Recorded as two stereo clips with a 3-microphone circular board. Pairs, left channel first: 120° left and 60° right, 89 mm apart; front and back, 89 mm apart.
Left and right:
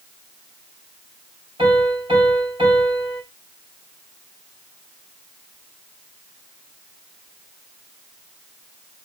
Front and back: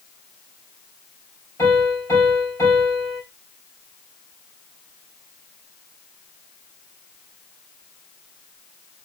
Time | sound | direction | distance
1.6 | a piano | 60° right | 4 m